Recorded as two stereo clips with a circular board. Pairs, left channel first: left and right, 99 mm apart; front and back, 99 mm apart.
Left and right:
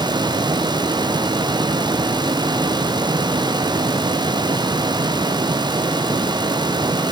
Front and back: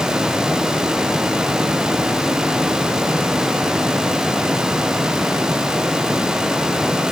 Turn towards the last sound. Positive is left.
No sound to turn to.